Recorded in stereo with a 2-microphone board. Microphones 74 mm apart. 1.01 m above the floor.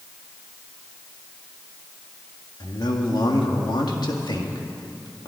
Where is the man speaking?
75° left (ahead or behind), 2.0 m.